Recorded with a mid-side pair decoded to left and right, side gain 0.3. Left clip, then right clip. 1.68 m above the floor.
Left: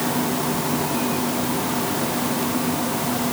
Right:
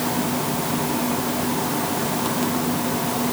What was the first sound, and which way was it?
Only background noise.